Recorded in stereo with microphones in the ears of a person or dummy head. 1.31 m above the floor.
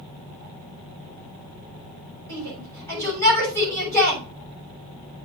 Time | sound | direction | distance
2.3 | a shout | 20° left (ahead or behind) | 7 m